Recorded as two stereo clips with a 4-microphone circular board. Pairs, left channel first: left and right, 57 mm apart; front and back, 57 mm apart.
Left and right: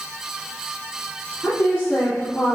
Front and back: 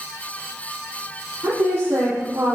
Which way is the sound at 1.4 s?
130° left.